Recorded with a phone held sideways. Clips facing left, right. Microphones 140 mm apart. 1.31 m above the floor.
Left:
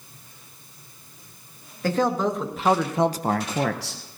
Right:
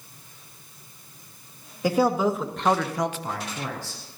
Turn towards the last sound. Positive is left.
turn(degrees=75)  # may be behind; listen again after turning